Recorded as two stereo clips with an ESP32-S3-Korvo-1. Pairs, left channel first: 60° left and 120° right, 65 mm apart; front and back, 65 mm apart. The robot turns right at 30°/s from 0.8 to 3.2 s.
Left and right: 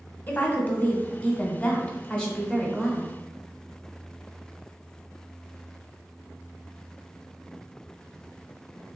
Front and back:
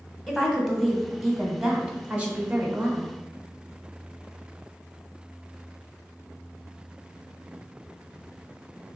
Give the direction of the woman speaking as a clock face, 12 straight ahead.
9 o'clock.